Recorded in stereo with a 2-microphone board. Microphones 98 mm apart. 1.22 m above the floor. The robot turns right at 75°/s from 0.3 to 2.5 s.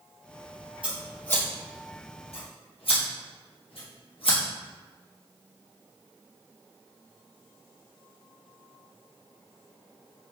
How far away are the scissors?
About 1.4 m.